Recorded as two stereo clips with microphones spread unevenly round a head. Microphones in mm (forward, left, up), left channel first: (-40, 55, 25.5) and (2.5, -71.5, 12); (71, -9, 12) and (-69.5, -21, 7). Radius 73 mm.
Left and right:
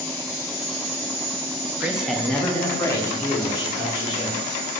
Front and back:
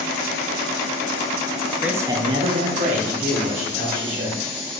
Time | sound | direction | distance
1.8 | a man speaking | 110° right | 0.5 m